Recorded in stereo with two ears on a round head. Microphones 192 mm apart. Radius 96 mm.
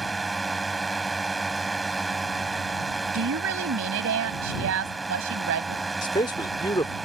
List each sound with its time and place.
0.0 s a drone: centre (ahead or behind)
3.1 s a woman speaking: 70° right (ahead or behind)
6.0 s a man speaking: 20° left (ahead or behind)